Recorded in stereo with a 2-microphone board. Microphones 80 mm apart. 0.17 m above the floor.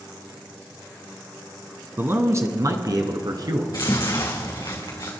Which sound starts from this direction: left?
Chewing, at 3.7 s.